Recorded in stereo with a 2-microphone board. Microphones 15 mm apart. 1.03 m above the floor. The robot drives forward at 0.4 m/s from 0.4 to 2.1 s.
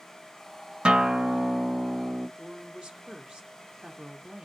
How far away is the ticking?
No ticking in this recording.